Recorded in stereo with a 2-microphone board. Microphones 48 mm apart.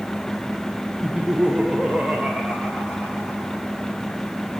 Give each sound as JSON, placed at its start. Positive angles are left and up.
{"t": 1.0, "sound": "laughter", "side_deg": -15, "distance_m": 0.8}